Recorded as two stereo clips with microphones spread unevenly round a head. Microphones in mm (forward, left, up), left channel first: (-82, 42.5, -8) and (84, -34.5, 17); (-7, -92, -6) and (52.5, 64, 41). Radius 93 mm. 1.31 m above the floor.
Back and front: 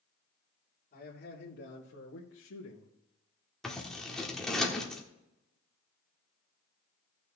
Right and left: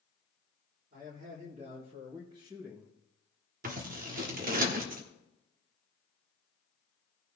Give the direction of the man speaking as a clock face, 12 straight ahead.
8 o'clock.